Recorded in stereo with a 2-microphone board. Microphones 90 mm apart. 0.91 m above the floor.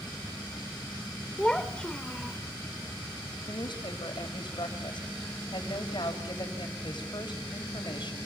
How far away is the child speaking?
About 1.7 m.